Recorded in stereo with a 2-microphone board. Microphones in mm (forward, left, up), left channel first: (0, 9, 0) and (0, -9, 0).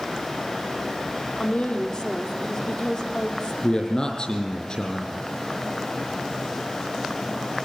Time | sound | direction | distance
1.4 | a woman speaking | 60° left (ahead or behind) | 3 m
3.6 | a man speaking | 45° left (ahead or behind) | 4 m